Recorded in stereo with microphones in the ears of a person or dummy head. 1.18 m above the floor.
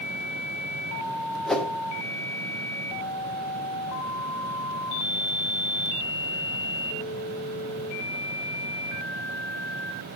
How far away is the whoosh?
About 0.7 m.